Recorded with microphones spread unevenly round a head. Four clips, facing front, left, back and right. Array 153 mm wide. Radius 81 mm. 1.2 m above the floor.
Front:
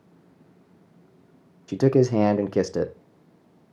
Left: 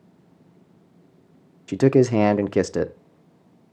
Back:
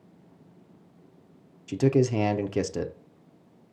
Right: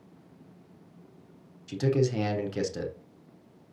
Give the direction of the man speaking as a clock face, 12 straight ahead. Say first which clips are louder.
Left 10 dB, front 4 dB; 10 o'clock.